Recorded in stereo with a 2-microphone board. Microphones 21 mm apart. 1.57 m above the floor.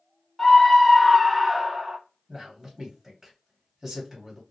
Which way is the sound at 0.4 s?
20° left (ahead or behind).